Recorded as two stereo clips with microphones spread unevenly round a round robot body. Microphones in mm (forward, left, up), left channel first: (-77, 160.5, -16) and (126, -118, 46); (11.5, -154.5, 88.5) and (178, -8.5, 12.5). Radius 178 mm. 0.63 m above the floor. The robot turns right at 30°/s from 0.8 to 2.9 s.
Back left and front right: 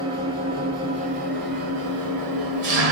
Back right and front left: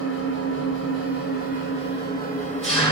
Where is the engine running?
130° right, 5.5 m; by 2.9 s 70° right, 5.5 m.